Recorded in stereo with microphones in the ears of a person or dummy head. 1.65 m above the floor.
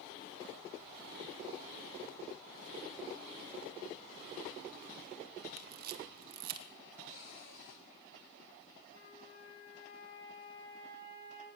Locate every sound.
5.6 s a camera shutter: 55° right (ahead or behind), 1.3 m
7.1 s a cupboard door: 55° left (ahead or behind), 8.5 m
8.9 s a flute: 75° left (ahead or behind), 9.5 m